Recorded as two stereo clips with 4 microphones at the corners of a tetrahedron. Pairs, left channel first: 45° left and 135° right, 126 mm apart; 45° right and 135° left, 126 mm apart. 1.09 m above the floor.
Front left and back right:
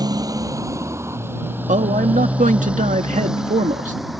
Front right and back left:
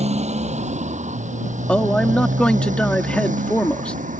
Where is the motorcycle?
165° left; by 4.2 s 135° left.